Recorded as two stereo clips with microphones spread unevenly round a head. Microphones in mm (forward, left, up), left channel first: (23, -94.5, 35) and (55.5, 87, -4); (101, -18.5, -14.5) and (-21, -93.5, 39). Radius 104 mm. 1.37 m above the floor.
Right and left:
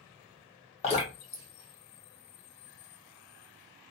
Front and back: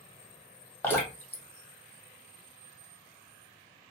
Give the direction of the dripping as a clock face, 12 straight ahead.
2 o'clock.